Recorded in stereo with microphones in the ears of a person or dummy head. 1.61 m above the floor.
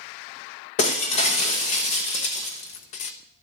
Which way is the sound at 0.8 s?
40° left (ahead or behind).